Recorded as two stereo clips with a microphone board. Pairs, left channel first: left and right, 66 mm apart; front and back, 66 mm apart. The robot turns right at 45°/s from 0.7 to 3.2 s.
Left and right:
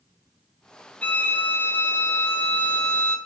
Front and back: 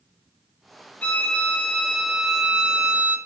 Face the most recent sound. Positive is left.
turn(degrees=140)